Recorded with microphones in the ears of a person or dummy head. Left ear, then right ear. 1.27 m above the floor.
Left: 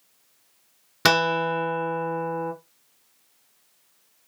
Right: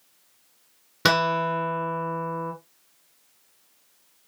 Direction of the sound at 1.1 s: 15° left (ahead or behind).